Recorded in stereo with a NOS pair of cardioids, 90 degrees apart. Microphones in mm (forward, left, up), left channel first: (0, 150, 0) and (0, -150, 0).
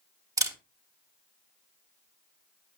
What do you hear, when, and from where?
0.4 s a camera shutter: 10° right, 1.6 m